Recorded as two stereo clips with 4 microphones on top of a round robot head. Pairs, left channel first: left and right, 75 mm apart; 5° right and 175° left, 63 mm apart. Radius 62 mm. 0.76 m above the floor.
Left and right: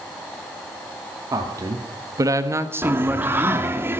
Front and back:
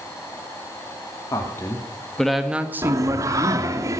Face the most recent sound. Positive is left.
turn(degrees=-145)